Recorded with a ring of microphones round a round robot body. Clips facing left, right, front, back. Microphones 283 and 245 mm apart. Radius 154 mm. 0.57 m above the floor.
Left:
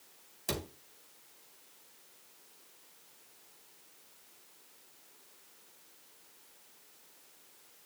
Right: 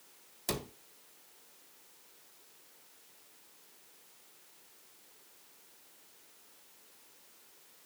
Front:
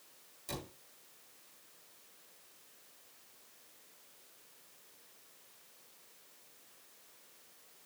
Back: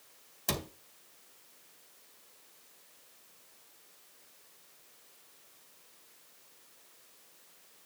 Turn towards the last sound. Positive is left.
turn(degrees=180)